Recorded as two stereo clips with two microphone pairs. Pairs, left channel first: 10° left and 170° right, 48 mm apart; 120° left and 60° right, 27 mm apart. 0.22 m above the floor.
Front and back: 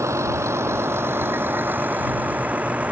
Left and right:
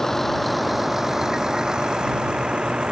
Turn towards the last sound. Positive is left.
turn(degrees=-110)